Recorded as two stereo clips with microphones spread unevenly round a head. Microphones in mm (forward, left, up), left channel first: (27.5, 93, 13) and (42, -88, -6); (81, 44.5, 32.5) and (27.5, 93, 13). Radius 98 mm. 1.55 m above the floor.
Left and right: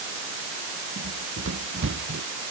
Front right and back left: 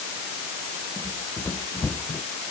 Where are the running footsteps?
120° right.